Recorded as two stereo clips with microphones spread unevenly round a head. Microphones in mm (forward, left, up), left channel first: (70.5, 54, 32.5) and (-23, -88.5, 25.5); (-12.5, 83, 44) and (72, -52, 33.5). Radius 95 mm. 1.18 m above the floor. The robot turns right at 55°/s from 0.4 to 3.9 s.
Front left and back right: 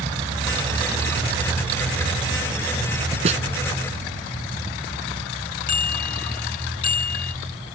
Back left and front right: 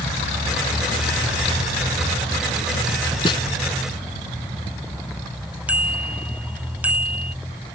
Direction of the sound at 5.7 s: 20° left.